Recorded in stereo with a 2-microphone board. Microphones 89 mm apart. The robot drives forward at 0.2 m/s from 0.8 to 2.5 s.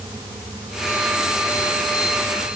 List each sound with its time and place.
Only background noise.